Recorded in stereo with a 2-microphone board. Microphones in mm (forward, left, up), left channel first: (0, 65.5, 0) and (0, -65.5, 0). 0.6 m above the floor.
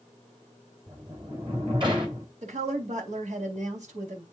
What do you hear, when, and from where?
0.9 s a sliding door: 40° right (ahead or behind), 2.5 m
2.4 s a woman speaking: 65° right (ahead or behind), 3.5 m